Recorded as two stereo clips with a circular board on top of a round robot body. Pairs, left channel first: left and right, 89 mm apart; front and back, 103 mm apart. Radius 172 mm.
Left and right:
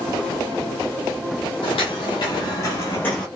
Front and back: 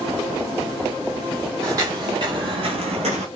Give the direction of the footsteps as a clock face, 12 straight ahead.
8 o'clock.